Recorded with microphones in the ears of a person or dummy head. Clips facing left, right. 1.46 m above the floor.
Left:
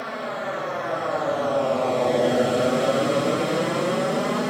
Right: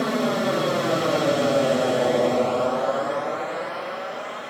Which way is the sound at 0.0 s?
55° right (ahead or behind).